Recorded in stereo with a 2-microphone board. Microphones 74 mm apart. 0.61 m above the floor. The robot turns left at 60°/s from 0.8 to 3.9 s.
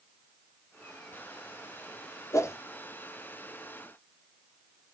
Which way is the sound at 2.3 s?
45° left (ahead or behind).